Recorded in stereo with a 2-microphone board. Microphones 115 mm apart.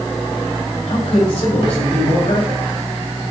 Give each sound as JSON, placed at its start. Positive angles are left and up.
{"t": 0.9, "sound": "a man speaking", "side_deg": 75, "distance_m": 4.0}